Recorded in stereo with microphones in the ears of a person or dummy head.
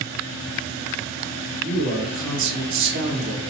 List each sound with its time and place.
1.6 s a man speaking: 70° right (ahead or behind), 1.9 m